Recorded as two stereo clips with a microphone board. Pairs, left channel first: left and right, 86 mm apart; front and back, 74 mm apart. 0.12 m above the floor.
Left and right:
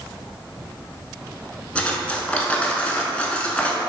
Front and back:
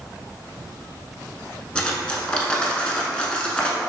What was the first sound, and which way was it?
Cutlery clinking, 50° left.